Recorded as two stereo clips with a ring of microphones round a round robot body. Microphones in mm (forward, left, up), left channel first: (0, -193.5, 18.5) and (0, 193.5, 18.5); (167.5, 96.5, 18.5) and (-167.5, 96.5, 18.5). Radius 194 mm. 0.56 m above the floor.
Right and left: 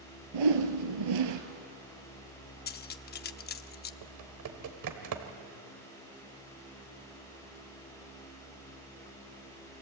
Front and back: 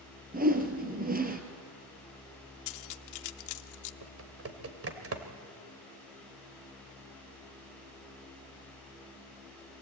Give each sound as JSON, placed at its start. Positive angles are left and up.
{"t": 0.3, "sound": "a whoosh", "azimuth_deg": 115, "distance_m": 2.5}
{"t": 2.7, "sound": "cutlery clinking", "azimuth_deg": -25, "distance_m": 0.6}
{"t": 4.0, "sound": "typing on a keyboard", "azimuth_deg": 130, "distance_m": 2.0}